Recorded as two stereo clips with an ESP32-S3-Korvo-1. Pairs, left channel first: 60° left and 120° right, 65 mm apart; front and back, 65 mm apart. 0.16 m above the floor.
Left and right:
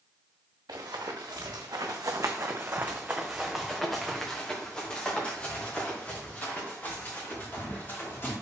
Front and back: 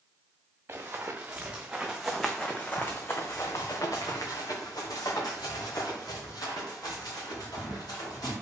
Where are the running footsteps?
125° right, 1.4 m; by 8.3 s straight ahead, 3.5 m.